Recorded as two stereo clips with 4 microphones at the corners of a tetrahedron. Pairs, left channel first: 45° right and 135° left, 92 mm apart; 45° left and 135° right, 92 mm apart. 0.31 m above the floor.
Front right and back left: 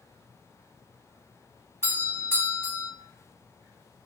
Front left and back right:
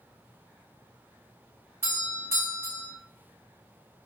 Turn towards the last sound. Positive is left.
turn(degrees=-85)